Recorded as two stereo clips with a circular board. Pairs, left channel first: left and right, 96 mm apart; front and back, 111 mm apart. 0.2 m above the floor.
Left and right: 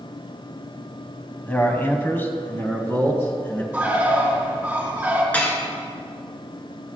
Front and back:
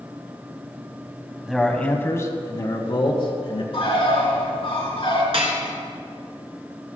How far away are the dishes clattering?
About 1.8 m.